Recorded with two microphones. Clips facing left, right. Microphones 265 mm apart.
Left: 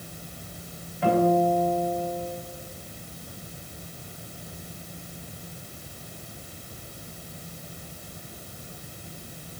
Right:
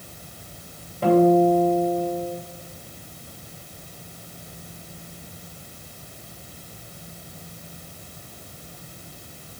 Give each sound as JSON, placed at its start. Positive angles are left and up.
{"t": 1.0, "sound": "a guitar", "side_deg": -45, "distance_m": 2.5}